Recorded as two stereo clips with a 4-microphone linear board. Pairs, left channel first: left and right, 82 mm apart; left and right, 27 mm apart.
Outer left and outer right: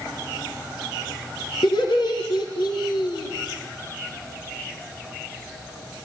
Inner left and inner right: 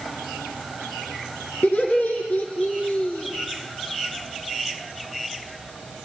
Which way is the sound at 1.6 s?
70° left (ahead or behind).